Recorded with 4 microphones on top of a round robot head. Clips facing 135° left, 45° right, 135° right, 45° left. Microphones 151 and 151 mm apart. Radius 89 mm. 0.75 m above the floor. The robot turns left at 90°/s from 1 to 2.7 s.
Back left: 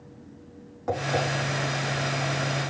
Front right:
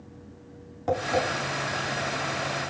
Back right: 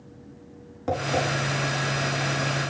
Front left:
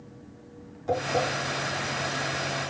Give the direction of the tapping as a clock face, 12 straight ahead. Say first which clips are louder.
Front right 1 dB, even; 4 o'clock.